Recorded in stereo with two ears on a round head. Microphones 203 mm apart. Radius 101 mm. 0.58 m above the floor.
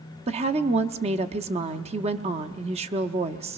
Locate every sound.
0.3 s a woman speaking: 30° right (ahead or behind), 0.8 m